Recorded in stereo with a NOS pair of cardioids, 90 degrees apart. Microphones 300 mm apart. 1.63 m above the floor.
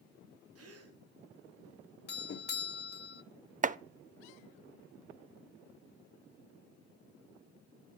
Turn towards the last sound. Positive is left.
turn(degrees=-25)